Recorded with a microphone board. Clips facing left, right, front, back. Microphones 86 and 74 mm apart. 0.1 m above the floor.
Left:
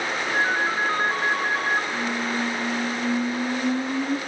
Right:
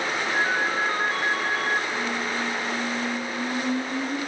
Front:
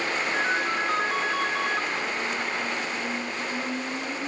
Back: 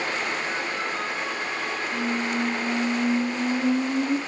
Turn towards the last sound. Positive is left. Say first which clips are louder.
# left 1 dB, back 3 dB
turn(degrees=160)